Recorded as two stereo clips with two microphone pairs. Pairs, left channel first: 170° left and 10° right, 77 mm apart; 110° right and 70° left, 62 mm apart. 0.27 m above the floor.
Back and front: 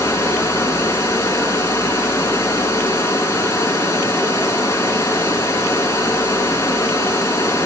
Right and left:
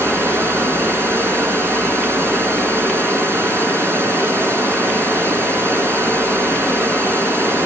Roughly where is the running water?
Behind left.